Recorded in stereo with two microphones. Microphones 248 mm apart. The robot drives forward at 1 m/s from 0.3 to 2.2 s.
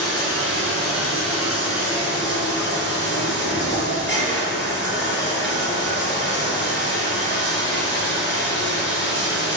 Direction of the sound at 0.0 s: 60° left (ahead or behind).